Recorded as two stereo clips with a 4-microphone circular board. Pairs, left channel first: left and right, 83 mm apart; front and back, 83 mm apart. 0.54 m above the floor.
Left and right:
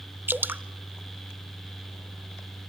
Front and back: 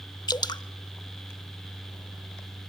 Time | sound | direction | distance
0.3 | dripping | 25° right | 0.7 m